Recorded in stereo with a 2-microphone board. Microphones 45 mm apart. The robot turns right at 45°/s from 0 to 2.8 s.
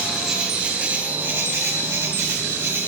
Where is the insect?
Straight behind, 9.5 m; by 2.9 s 55° right, 9.5 m.